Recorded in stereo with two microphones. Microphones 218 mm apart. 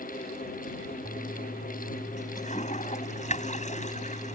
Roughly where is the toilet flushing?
Left.